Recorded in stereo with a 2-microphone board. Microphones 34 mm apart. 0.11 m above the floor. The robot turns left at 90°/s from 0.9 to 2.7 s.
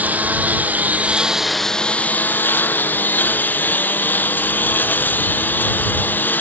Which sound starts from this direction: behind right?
A lawn mower, at 0.0 s.